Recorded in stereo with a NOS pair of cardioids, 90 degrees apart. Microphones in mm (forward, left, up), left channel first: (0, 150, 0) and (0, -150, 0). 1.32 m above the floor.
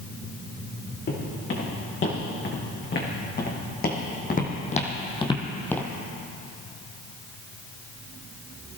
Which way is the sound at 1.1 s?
40° left.